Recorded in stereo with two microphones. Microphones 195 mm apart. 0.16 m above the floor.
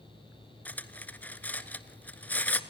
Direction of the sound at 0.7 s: 10° left (ahead or behind).